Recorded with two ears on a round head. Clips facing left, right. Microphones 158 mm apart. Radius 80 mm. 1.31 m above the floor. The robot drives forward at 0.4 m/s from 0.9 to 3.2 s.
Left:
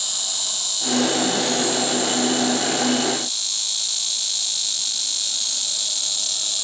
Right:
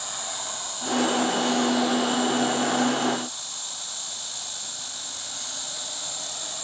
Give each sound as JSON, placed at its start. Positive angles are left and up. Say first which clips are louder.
{"t": 0.0, "sound": "an insect", "louder": "right 3 dB", "side_deg": 65, "distance_m": 0.8}